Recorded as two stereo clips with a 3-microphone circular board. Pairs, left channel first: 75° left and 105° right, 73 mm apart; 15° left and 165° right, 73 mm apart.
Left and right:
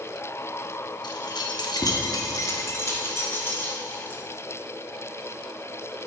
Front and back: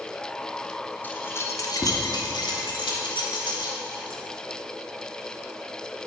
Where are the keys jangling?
80° left, 0.9 m; by 4.2 s 10° left, 2 m.